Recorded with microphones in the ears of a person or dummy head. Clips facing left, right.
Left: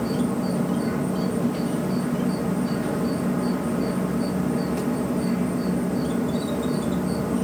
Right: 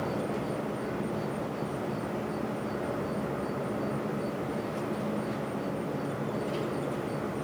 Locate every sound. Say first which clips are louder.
0.0 s an insect: left 8 dB; 75° left (ahead or behind)